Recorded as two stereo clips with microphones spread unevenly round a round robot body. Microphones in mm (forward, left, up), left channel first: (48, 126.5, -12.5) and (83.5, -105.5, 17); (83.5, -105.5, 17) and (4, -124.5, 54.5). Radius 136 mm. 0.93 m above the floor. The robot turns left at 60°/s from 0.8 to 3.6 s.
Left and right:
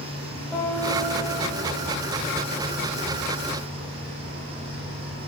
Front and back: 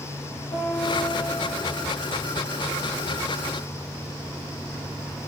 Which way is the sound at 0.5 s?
10° left.